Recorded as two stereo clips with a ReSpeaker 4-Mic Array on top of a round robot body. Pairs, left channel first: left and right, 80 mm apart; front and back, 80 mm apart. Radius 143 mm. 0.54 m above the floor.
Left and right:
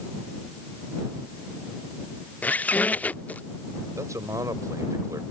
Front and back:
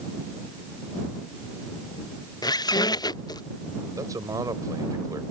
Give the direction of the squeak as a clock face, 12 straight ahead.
11 o'clock.